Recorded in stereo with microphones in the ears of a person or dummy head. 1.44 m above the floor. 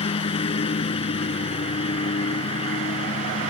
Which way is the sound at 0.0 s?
35° left (ahead or behind).